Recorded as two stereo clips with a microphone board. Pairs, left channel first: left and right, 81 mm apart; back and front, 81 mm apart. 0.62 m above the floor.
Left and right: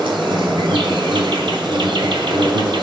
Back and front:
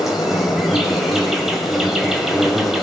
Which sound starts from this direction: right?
An insect, at 0.0 s.